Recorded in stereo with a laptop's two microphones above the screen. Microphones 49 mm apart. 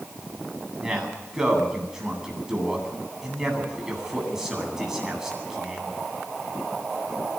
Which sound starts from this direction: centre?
A man speaking, at 0.8 s.